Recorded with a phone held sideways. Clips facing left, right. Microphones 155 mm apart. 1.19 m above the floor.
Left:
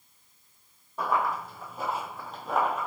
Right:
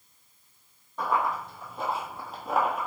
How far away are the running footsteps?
About 3 m.